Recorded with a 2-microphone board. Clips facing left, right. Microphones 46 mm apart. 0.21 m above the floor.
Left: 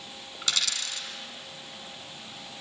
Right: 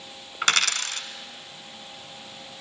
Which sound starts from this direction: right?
A dropped coin, at 0.4 s.